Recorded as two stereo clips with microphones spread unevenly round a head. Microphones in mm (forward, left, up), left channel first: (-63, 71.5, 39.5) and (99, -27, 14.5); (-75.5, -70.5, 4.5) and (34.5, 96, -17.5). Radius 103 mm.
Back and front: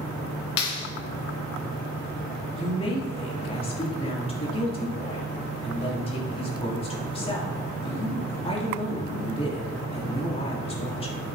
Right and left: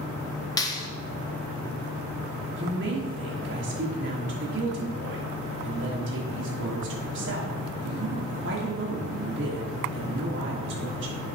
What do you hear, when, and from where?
0.6 s a clap: 165° left, 1.1 m
2.6 s a woman speaking: 85° left, 2.5 m